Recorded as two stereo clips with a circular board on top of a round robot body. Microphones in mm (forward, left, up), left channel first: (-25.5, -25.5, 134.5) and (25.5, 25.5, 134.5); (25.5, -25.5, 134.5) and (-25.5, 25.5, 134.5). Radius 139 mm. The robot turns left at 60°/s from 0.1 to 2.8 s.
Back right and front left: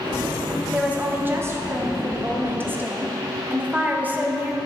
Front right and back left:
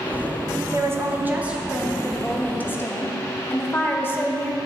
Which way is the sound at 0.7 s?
120° left.